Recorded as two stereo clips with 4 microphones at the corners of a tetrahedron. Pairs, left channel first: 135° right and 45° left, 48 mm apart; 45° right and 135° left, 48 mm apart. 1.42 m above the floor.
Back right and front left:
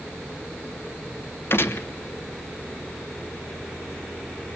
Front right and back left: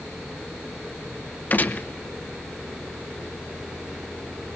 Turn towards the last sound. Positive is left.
turn(degrees=-95)